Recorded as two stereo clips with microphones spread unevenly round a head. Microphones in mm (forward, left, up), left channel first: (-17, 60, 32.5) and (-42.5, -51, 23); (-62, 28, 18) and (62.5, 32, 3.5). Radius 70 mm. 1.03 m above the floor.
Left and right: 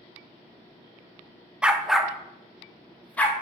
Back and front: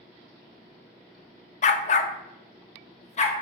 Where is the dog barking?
175° left, 0.7 m; by 3.3 s 150° left, 1.5 m.